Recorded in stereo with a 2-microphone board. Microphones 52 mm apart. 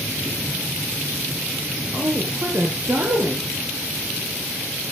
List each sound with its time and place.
1.9 s a woman speaking: 55° right (ahead or behind), 2.0 m